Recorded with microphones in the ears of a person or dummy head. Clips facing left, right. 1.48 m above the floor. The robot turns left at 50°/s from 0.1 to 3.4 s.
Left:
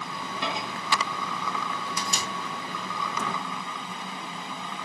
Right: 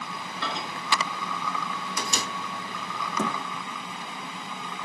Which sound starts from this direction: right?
A thud, at 3.2 s.